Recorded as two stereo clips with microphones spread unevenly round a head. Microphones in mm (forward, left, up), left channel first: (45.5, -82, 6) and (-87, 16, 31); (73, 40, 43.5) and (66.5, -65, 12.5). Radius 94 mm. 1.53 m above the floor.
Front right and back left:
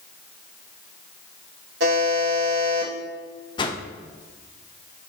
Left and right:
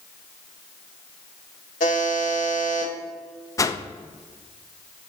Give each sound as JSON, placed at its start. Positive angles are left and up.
{"t": 1.8, "sound": "a buzzer", "azimuth_deg": 105, "distance_m": 2.5}
{"t": 3.6, "sound": "a whoosh", "azimuth_deg": 35, "distance_m": 0.7}